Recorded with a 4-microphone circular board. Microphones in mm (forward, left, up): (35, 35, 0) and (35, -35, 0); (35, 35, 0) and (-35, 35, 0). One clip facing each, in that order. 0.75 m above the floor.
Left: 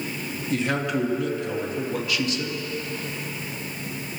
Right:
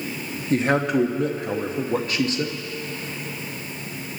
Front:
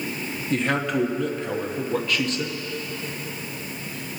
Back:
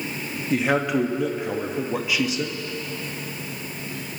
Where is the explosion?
No explosion in this recording.